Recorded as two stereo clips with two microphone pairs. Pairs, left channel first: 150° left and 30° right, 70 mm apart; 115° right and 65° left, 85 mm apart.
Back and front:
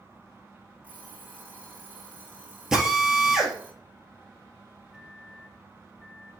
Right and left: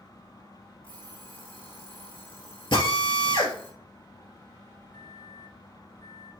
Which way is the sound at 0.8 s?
100° right.